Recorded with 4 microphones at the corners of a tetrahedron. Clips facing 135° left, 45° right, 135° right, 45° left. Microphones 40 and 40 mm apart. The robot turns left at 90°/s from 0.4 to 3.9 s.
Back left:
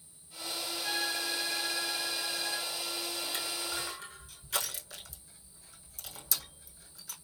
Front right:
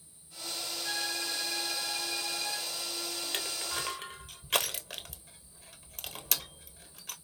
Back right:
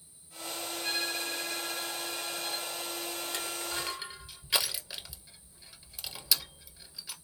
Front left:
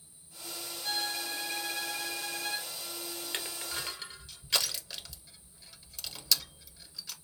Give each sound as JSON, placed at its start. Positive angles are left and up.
{"t": 0.8, "sound": "a violin", "azimuth_deg": 170, "distance_m": 4.5}
{"t": 3.3, "sound": "crushing", "azimuth_deg": -10, "distance_m": 1.3}